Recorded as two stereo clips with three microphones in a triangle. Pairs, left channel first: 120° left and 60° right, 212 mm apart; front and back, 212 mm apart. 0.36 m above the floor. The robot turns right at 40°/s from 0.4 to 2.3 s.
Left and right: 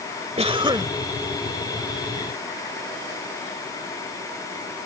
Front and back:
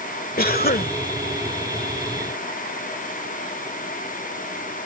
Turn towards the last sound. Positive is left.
turn(degrees=65)